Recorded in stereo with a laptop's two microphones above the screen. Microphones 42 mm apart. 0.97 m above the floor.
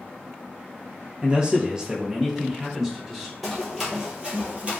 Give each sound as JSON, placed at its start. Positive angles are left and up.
{"t": 1.2, "sound": "a man speaking", "side_deg": -25, "distance_m": 0.5}
{"t": 3.4, "sound": "running footsteps", "side_deg": 0, "distance_m": 1.1}